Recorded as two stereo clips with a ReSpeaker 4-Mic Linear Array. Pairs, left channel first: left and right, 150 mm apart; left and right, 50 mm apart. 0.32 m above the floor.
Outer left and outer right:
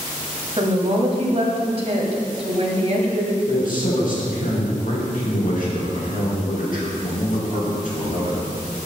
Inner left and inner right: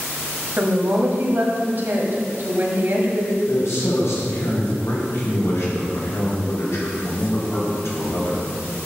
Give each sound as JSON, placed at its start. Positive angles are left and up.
{"t": 0.6, "sound": "a woman speaking", "side_deg": -50, "distance_m": 1.5}
{"t": 3.5, "sound": "a man speaking", "side_deg": 75, "distance_m": 3.5}